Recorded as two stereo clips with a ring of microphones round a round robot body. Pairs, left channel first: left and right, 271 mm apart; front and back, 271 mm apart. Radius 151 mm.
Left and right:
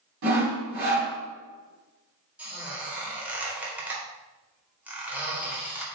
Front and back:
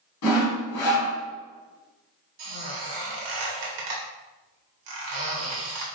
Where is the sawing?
40° right, 1.7 m.